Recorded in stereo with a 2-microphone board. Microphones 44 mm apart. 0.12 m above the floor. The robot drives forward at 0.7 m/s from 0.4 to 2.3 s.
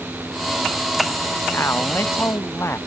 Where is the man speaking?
70° left (ahead or behind); by 2.8 s 75° left (ahead or behind).